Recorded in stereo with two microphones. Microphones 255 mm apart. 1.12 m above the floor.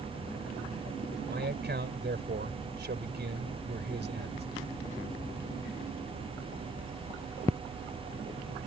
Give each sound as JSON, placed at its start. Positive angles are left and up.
{"t": 1.3, "sound": "a man speaking", "side_deg": -40}